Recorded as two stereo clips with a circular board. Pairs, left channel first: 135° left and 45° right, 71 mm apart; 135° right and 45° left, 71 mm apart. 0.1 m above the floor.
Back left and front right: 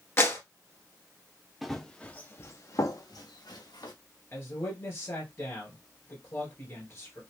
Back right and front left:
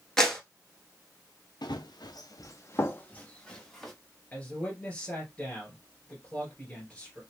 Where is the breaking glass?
I don't hear breaking glass.